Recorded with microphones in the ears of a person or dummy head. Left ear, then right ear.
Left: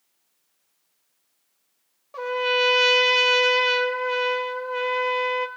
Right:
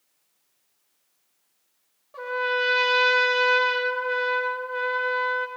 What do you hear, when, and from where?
2.1 s a trumpet: 35° left (ahead or behind), 0.6 m